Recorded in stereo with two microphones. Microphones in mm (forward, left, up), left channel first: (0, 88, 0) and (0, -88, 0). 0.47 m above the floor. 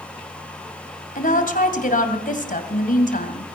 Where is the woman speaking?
55° left (ahead or behind), 2.5 m.